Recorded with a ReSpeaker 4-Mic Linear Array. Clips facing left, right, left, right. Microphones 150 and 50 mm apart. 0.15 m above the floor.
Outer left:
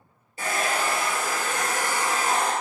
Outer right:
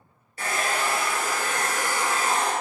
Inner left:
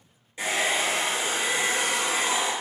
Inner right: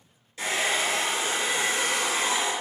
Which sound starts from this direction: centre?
A hair dryer, at 0.4 s.